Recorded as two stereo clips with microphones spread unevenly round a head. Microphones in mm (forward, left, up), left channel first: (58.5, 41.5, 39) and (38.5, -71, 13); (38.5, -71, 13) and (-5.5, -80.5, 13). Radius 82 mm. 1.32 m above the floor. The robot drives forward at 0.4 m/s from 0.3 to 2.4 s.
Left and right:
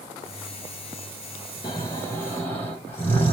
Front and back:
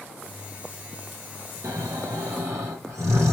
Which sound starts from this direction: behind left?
Snoring, at 1.6 s.